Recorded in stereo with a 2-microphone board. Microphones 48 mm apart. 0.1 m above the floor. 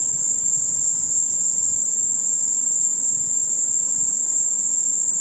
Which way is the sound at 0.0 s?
5° left (ahead or behind).